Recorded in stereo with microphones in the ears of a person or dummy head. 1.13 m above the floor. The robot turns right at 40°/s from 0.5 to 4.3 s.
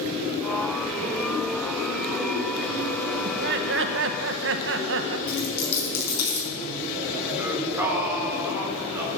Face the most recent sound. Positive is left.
turn(degrees=-10)  # may be behind; listen again after turning